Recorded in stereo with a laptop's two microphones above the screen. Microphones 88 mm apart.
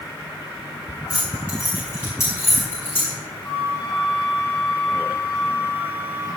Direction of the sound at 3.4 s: 20° left (ahead or behind).